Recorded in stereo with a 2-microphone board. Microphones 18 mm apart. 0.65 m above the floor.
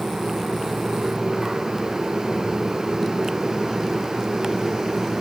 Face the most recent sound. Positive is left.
No sound to turn to.